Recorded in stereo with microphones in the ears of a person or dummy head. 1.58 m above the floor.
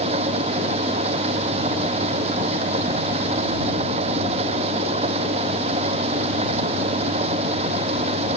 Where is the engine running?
35° right (ahead or behind).